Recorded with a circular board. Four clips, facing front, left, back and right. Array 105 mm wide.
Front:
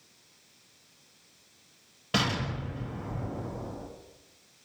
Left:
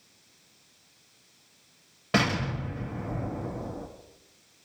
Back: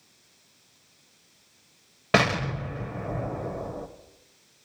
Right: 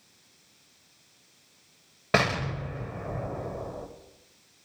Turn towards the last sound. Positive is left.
turn(degrees=-155)